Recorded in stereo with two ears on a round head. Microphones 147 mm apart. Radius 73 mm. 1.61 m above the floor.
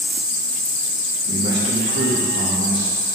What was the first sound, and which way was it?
A man speaking, 75° right (ahead or behind).